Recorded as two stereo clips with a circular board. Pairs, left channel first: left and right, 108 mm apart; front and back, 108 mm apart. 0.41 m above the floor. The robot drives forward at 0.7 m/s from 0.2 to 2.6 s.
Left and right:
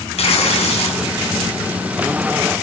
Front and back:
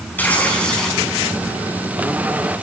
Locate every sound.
0.2 s tearing paper: 75° left, 2.5 m; by 1.1 s 85° left, 2.5 m